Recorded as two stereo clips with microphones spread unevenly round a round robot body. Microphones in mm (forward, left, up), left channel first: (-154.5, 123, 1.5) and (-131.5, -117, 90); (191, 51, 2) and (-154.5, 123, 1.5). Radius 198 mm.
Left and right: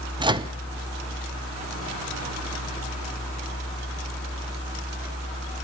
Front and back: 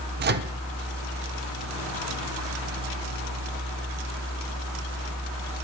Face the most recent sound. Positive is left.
turn(degrees=180)